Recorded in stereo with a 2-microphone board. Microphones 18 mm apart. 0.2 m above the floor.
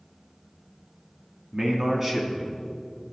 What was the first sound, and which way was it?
A man speaking, 45° right (ahead or behind).